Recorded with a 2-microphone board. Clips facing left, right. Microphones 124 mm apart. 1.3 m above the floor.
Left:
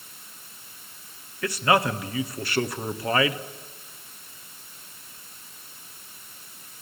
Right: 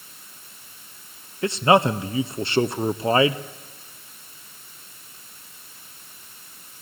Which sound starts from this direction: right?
A man speaking, at 1.4 s.